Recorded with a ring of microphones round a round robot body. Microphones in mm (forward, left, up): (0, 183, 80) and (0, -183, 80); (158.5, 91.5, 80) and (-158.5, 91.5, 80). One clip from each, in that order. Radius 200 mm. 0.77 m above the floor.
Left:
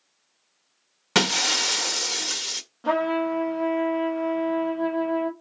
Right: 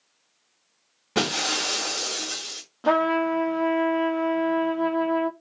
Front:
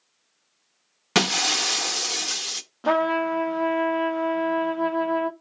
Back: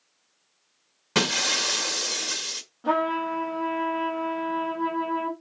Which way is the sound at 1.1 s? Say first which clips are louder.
Left 3 dB, front 2 dB; 55° left.